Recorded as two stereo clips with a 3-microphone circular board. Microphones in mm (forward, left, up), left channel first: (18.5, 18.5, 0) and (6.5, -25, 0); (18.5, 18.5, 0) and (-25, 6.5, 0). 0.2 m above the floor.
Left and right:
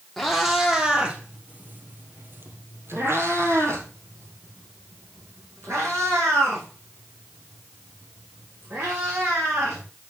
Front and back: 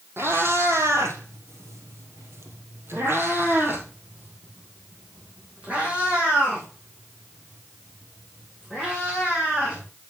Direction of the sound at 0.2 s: 165° left.